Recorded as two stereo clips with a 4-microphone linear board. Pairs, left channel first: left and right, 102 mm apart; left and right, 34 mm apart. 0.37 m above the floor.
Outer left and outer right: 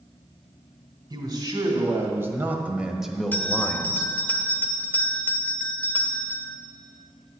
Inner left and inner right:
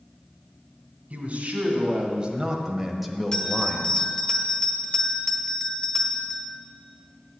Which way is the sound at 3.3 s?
20° left (ahead or behind).